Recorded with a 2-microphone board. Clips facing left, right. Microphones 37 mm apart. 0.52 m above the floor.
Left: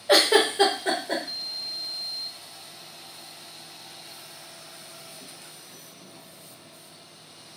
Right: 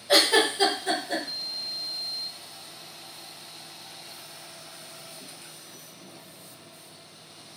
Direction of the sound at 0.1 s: 55° left (ahead or behind).